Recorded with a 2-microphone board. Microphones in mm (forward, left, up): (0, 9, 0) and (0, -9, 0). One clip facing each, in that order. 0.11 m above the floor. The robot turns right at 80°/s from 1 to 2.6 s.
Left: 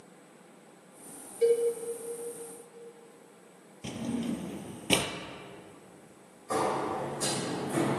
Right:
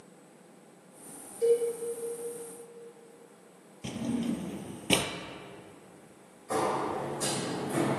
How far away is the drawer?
About 0.5 m.